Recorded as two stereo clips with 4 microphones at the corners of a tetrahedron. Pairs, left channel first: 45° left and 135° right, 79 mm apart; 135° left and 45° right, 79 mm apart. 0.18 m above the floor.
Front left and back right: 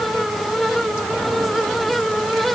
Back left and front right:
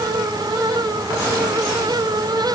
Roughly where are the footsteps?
No footsteps in this recording.